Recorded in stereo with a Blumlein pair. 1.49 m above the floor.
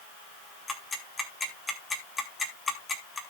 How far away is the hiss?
I don't hear a hiss.